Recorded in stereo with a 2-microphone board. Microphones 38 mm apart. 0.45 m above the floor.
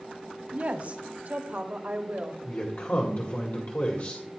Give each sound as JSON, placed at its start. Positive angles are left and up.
{"t": 0.5, "sound": "a woman speaking", "side_deg": -35, "distance_m": 1.2}
{"t": 2.4, "sound": "a man speaking", "side_deg": 55, "distance_m": 1.8}